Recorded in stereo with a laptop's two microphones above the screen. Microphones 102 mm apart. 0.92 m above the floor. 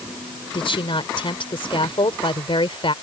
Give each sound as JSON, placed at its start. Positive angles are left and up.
{"t": 0.5, "sound": "a woman speaking", "side_deg": 65}